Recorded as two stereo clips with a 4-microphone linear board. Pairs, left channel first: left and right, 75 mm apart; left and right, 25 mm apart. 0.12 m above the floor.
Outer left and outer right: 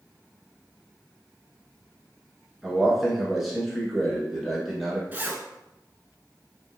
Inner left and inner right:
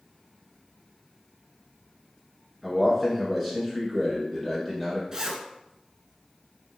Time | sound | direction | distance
2.6 | a man speaking | 5° right (ahead or behind) | 1.2 m
5.1 | a zipper | 25° right (ahead or behind) | 0.5 m